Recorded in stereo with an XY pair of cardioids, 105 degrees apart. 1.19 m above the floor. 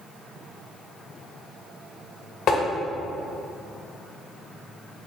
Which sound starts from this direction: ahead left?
Tapping, at 2.5 s.